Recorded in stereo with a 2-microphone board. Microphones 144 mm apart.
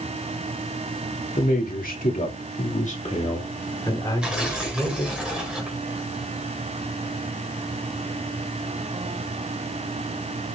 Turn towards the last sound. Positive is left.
turn(degrees=-5)  # may be behind; listen again after turning